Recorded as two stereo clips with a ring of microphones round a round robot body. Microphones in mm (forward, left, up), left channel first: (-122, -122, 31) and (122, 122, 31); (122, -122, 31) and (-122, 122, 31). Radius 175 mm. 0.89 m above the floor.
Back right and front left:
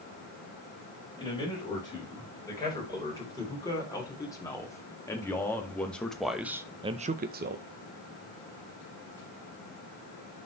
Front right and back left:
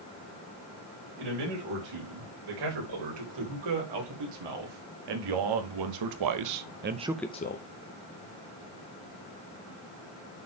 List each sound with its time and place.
1.2 s a man speaking: 145° left, 5.5 m; by 7.7 s 10° right, 0.8 m